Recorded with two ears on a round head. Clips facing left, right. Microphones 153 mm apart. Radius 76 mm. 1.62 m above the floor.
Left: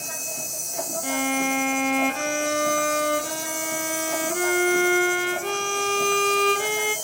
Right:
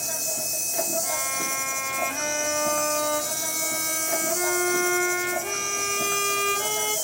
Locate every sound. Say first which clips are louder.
0.0 s an insect: right 2 dB; 5° right (ahead or behind), 0.9 m
1.0 s a violin: left 7 dB; 50° left (ahead or behind), 0.6 m